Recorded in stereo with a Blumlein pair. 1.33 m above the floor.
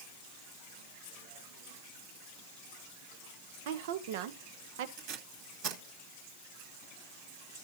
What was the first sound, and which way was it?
A woman speaking, 50° right.